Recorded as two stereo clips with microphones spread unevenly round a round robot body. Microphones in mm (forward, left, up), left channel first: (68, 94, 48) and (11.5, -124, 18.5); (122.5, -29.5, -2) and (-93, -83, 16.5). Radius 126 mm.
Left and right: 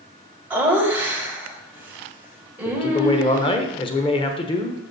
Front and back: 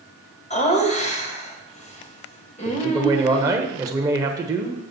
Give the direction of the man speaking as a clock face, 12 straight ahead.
8 o'clock.